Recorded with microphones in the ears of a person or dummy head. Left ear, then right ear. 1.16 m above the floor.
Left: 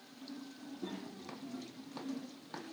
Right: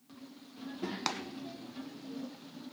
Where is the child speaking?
60° right (ahead or behind), 1.2 m; by 2.6 s 75° right (ahead or behind), 2.5 m.